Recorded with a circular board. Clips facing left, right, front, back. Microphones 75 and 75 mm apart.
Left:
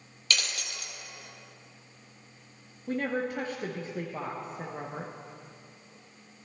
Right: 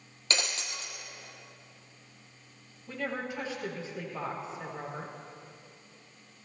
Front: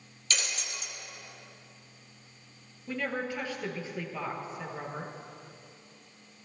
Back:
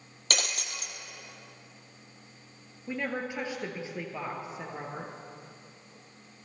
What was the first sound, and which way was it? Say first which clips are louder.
Breaking glass: even, back 2 dB; 150° right.